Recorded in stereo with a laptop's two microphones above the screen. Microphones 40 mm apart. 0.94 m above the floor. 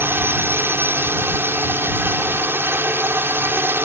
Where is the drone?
65° right (ahead or behind).